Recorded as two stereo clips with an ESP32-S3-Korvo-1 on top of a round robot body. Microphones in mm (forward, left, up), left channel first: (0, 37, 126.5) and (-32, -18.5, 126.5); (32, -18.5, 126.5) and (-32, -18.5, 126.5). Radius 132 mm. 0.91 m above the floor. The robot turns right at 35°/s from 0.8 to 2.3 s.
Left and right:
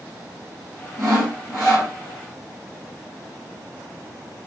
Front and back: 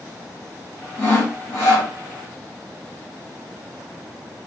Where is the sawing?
55° right, 1.0 m; by 1.9 s 20° right, 1.0 m.